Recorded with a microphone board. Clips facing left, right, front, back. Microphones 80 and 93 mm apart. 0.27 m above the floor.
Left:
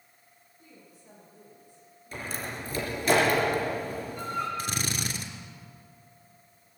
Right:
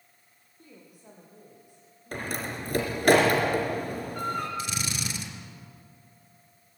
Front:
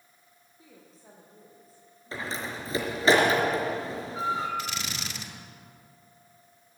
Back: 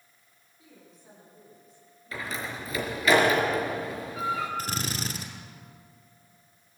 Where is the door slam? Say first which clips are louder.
Right 3 dB, front 1 dB; 60° right, 4 m.